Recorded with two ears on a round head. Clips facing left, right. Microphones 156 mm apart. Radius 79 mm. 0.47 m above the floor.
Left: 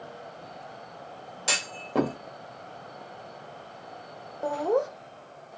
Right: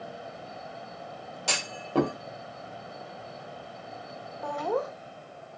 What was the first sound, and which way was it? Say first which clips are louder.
A clunk: even; 5° left (ahead or behind).